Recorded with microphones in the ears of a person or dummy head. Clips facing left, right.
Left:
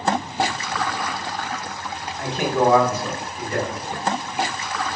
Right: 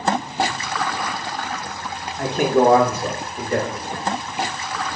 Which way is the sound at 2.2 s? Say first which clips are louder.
Right 4 dB; 35° right (ahead or behind).